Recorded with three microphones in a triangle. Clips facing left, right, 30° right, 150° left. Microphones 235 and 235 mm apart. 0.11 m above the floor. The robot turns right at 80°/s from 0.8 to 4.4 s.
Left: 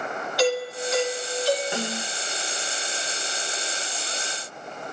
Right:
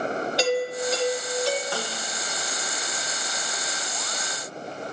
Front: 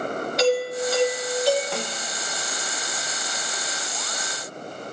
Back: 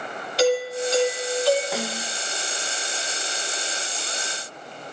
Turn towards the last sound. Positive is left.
turn(degrees=-75)